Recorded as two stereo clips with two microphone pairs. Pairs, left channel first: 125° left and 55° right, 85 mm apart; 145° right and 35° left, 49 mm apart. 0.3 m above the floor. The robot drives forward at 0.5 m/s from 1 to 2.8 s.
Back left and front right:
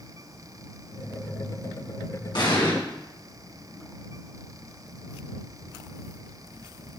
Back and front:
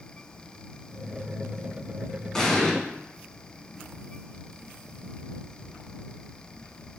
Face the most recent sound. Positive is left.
turn(degrees=135)